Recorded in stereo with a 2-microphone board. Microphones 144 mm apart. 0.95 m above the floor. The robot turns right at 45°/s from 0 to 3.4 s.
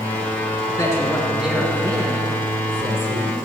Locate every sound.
0.6 s a man speaking: 145° left, 2.5 m; by 3.4 s 95° right, 2.5 m